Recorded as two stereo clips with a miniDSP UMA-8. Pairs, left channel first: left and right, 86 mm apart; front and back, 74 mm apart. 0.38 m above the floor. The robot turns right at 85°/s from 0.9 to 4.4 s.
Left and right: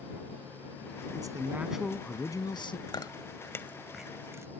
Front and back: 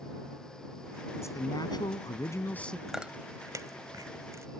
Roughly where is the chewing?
Left.